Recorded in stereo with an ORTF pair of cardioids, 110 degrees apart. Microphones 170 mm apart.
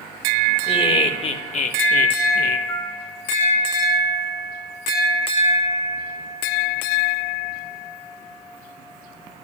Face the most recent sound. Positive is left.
turn(degrees=65)